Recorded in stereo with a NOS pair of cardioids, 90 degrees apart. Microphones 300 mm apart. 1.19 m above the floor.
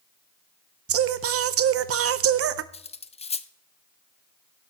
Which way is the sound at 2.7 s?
20° left.